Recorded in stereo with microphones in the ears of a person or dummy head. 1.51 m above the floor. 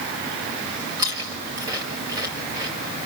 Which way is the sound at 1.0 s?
15° right (ahead or behind).